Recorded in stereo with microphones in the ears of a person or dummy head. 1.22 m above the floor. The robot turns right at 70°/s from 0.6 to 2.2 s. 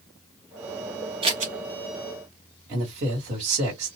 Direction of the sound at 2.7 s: 40° right (ahead or behind).